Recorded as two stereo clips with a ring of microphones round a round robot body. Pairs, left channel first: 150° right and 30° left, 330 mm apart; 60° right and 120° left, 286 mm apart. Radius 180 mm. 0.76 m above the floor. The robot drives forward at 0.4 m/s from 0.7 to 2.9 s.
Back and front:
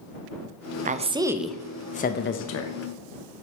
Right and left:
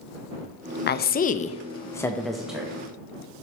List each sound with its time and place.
0.9 s a woman speaking: 25° right, 0.6 m; by 2.7 s 160° right, 0.6 m